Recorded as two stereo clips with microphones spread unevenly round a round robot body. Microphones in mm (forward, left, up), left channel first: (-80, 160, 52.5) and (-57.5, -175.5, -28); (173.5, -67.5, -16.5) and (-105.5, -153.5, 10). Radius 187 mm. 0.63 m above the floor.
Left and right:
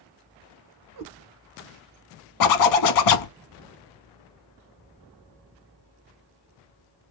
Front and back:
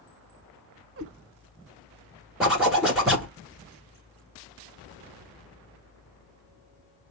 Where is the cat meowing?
125° right, 1.2 m.